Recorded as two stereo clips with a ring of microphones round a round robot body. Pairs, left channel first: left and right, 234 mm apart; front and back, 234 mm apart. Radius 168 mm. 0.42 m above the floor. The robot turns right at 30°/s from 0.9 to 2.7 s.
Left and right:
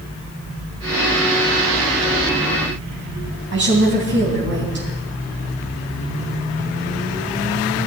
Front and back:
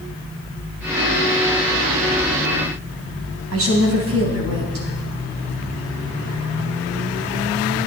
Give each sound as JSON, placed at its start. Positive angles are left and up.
{"t": 3.5, "sound": "a woman speaking", "azimuth_deg": -140, "distance_m": 3.0}